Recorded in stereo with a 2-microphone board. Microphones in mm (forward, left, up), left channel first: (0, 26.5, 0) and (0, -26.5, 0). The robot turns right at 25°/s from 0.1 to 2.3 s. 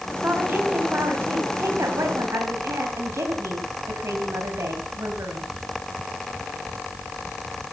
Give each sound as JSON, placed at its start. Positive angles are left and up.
{"t": 0.2, "sound": "a woman speaking", "azimuth_deg": -140, "distance_m": 3.0}